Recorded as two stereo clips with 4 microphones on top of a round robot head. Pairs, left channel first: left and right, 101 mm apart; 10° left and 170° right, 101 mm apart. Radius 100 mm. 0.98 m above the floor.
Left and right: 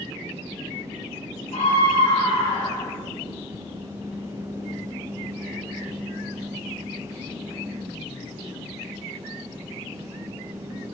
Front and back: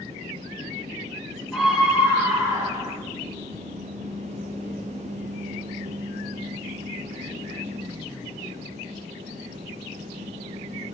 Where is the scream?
105° left, 2 m; by 3.0 s 140° left, 2 m.